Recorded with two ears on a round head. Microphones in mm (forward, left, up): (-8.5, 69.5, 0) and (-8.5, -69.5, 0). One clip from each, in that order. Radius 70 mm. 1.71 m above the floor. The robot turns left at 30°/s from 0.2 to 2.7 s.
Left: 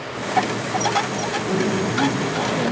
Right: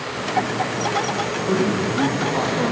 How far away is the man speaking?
About 2 m.